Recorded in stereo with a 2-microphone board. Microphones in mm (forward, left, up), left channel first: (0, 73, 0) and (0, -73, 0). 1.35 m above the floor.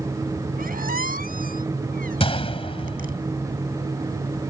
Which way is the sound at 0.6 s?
85° right.